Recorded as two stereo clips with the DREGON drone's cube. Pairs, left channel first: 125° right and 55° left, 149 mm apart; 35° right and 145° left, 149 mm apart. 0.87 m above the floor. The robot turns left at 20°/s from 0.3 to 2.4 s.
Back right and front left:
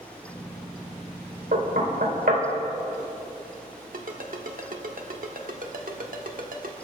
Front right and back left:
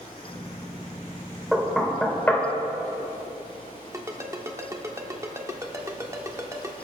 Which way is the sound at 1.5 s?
60° left.